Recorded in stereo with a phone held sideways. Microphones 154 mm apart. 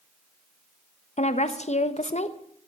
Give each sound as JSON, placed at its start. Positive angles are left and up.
{"t": 1.2, "sound": "a woman speaking", "side_deg": 45, "distance_m": 1.1}